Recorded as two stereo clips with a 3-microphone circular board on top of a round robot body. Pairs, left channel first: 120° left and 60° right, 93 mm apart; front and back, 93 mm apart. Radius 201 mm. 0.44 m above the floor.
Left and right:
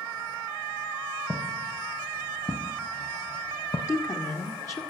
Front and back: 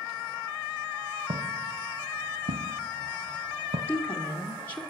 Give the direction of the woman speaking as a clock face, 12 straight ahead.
10 o'clock.